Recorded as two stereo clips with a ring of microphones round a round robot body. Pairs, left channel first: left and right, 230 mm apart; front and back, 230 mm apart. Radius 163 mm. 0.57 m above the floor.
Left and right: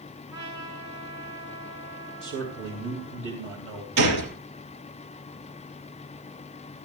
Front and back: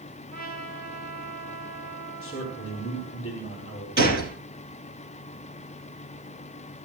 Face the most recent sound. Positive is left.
turn(degrees=-120)